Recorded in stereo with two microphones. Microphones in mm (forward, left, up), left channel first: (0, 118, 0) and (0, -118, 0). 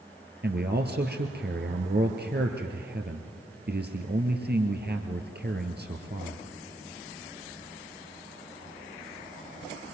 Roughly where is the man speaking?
Right.